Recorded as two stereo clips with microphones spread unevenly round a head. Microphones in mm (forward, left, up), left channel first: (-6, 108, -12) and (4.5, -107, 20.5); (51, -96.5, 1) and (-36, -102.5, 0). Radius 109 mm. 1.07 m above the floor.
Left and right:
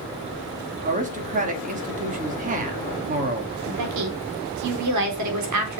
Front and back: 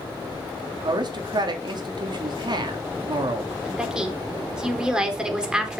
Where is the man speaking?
145° right, 3 m.